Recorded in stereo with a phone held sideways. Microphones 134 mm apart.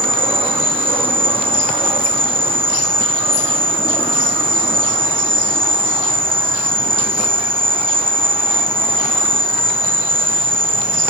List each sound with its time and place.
0.0 s an insect: 40° right (ahead or behind), 1.1 m